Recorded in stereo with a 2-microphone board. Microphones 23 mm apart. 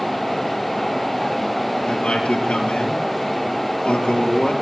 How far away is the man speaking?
About 4.5 m.